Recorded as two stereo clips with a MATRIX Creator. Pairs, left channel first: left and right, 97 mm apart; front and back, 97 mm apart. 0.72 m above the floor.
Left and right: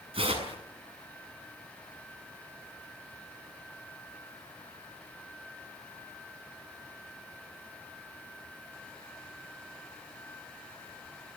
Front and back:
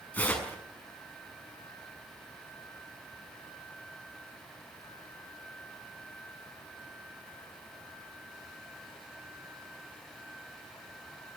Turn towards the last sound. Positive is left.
turn(degrees=-70)